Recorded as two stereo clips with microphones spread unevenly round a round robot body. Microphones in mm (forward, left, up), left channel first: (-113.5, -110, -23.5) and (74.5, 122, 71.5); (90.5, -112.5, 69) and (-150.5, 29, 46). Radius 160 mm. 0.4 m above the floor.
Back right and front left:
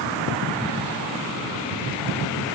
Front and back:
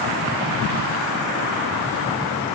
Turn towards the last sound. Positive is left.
No sound to turn to.